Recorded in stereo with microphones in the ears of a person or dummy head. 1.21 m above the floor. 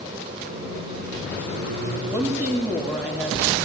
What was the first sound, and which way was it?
A microwave, 75° right (ahead or behind).